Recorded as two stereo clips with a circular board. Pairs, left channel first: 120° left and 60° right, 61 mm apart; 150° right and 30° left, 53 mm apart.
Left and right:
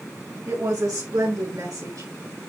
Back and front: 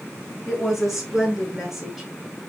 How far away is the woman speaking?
About 4.5 m.